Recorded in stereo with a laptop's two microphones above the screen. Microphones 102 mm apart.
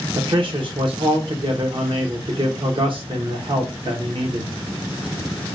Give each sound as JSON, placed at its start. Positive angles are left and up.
{"t": 0.1, "sound": "a man speaking", "side_deg": -55, "distance_m": 0.6}